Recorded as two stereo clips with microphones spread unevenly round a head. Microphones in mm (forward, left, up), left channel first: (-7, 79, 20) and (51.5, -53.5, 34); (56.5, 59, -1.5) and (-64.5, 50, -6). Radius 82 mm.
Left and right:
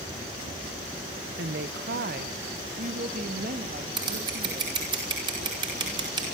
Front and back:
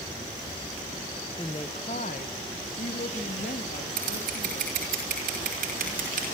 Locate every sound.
1.4 s a woman speaking: 65° right, 0.9 m; by 4.8 s 25° right, 3.5 m
4.0 s scissors: 130° right, 5 m